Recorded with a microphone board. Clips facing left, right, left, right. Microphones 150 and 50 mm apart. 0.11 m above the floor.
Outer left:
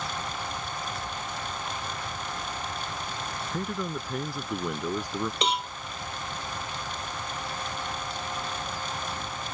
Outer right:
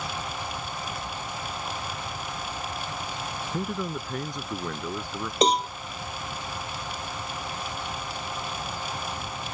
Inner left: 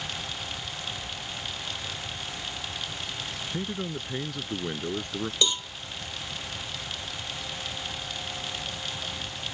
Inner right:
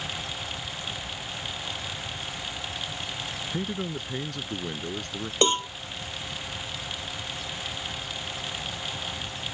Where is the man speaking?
10° right (ahead or behind); by 5.3 s 20° left (ahead or behind).